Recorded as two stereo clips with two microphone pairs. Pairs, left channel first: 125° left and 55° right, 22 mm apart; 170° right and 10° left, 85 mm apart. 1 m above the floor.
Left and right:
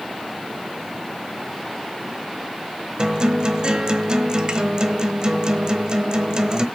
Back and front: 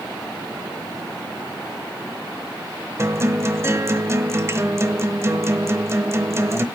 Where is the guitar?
35° right, 1.0 m.